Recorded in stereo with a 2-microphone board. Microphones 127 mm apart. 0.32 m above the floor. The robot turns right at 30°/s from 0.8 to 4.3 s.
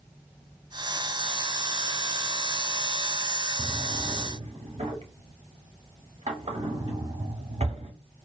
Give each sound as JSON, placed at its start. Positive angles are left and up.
{"t": 3.6, "sound": "a drawer", "side_deg": -40, "distance_m": 0.6}